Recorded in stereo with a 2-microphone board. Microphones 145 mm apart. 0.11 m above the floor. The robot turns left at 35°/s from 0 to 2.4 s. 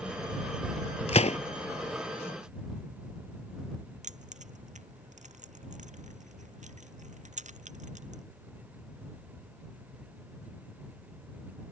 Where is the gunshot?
50° left (ahead or behind); by 1.4 s 55° left (ahead or behind).